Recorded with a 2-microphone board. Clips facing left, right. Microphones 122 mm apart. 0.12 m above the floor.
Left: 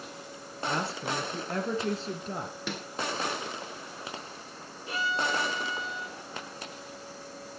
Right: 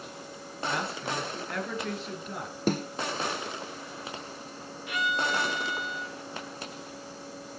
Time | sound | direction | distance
0.7 | a woman speaking | 30° left (ahead or behind) | 2.5 m
2.7 | a snare drum | 40° right (ahead or behind) | 1.4 m
4.9 | a violin | 30° left (ahead or behind) | 1.8 m